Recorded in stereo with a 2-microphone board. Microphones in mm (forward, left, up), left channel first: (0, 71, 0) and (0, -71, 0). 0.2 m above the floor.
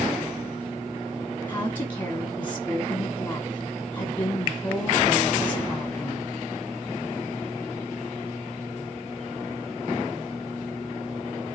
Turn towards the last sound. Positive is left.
turn(degrees=15)  # may be behind; listen again after turning